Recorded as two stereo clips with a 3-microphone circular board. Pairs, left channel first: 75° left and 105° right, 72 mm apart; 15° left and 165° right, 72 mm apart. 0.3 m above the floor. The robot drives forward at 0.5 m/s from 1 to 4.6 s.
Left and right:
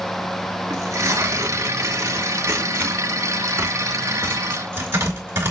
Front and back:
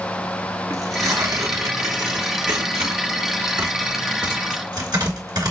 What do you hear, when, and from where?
0.7 s tearing paper: 140° right, 2.0 m; by 5.5 s 160° right, 3.5 m